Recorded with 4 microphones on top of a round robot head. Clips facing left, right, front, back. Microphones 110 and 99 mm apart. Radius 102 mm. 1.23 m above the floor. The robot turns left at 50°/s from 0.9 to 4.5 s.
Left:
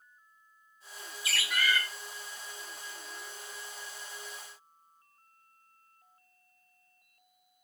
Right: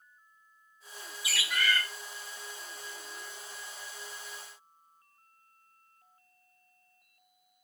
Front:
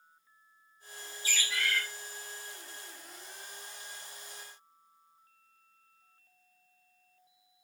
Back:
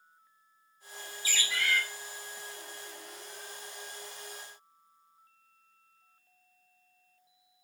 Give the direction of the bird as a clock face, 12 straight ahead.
6 o'clock.